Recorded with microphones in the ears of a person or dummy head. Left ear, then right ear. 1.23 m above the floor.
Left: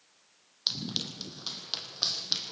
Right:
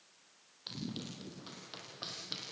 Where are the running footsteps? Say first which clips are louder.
Left 13 dB; 40° left (ahead or behind), 3.5 m; by 2.5 s 25° left (ahead or behind), 3 m.